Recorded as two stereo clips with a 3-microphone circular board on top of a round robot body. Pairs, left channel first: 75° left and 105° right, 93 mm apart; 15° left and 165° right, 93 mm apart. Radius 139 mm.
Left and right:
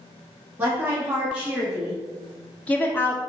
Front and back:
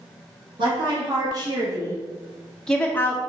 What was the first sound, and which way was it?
A woman speaking, 170° right.